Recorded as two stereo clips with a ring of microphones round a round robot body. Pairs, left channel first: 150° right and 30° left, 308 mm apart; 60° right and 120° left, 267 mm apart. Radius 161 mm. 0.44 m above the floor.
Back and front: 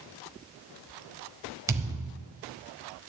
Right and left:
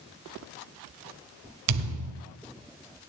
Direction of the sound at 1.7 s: 110° left.